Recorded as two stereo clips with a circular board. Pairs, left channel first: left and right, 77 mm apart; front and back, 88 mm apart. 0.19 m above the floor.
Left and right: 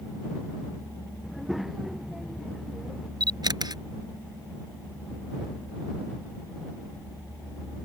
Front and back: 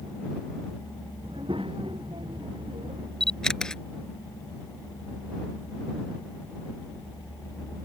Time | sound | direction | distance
1.2 | a child speaking | 175° right | ?
3.2 | a camera shutter | 85° right | ?